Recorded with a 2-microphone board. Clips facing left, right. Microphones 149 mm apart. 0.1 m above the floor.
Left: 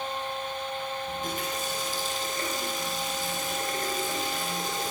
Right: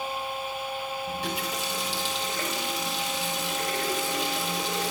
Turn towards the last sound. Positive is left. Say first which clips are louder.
# right 1 dB
turn(degrees=-80)